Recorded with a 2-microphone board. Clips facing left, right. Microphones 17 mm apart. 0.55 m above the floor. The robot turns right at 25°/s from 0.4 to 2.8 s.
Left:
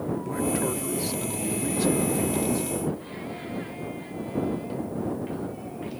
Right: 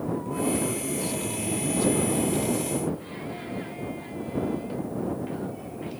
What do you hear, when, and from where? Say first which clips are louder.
0.2 s a man speaking: left 1 dB; 25° left (ahead or behind); by 2.7 s 20° left (ahead or behind)